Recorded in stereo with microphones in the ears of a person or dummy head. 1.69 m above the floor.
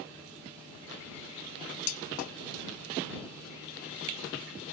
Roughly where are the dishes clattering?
Left.